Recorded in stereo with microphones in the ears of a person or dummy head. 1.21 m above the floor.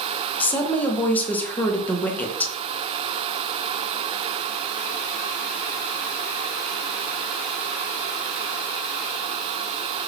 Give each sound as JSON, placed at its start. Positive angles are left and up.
{"t": 0.4, "sound": "a woman speaking", "side_deg": 15, "distance_m": 0.9}